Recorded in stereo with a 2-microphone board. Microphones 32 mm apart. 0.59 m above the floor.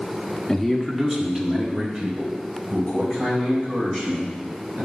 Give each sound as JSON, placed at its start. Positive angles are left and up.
{"t": 0.5, "sound": "a man speaking", "side_deg": 10, "distance_m": 0.8}